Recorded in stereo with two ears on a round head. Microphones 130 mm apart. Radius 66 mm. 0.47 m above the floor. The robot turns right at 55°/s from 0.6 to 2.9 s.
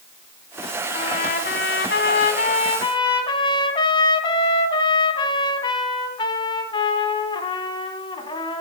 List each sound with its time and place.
0.9 s a trumpet: 40° left, 1.7 m; by 8.6 s 145° left, 1.7 m